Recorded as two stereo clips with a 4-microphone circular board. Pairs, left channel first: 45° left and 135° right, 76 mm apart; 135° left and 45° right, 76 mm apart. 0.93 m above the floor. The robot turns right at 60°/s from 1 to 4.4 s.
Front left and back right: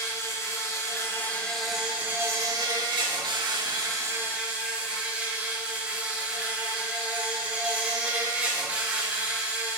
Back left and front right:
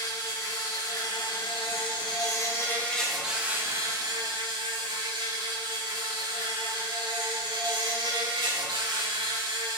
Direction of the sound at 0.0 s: 95° left.